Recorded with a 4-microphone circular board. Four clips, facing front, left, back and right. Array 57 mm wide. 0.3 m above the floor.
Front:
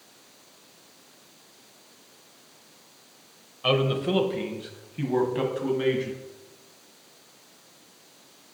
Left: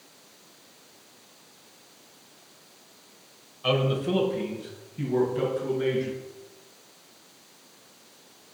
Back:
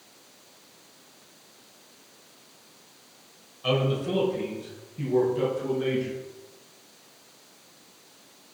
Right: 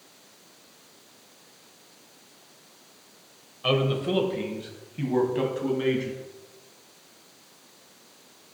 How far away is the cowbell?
No cowbell in this recording.